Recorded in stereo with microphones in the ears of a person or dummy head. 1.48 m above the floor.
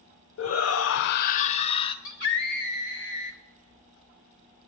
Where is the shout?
70° left (ahead or behind), 0.5 m; by 1.9 s 20° left (ahead or behind), 0.8 m.